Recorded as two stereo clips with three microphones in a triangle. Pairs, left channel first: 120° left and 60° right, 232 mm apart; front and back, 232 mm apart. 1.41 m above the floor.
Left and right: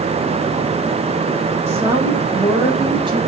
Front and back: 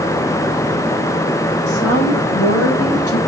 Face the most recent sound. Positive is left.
turn(degrees=10)